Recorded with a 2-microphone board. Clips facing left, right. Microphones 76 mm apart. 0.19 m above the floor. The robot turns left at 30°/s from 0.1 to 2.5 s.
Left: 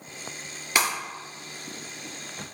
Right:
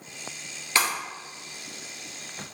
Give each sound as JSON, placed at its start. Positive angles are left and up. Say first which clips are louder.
{"t": 0.8, "sound": "breaking glass", "louder": "even", "side_deg": 15, "distance_m": 1.5}